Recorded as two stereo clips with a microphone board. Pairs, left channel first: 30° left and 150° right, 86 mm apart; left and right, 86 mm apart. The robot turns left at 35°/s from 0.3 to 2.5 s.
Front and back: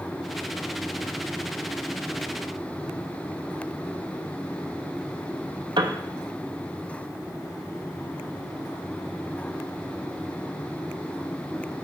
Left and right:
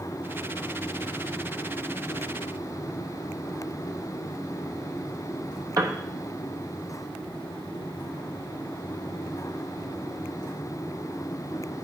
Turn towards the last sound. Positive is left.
turn(degrees=-135)